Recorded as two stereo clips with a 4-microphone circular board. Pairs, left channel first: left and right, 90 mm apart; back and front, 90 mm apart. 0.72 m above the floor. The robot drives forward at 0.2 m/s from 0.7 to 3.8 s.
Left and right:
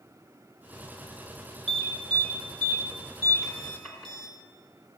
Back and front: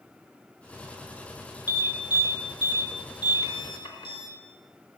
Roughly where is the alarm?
Behind.